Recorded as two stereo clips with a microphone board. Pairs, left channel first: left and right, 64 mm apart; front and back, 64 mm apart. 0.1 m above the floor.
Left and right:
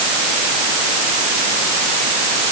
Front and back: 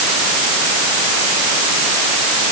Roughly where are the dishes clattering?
No dishes clattering in this recording.